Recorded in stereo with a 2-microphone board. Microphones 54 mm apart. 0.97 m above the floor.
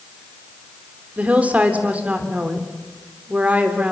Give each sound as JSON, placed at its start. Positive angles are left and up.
{"t": 1.2, "sound": "a woman speaking", "side_deg": -25, "distance_m": 3.5}